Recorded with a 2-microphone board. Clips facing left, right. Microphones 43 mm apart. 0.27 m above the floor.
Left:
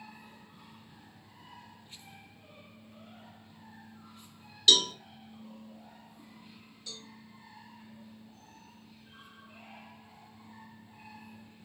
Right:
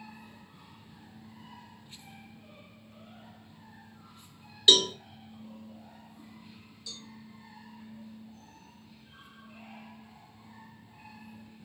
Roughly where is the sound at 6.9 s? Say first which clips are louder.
Right 1 dB; left.